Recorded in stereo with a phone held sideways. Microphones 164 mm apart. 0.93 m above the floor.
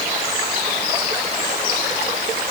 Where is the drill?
I don't hear a drill.